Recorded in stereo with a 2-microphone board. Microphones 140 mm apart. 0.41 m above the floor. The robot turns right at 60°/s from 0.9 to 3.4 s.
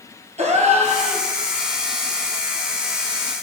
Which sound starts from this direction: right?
A gasp, at 0.4 s.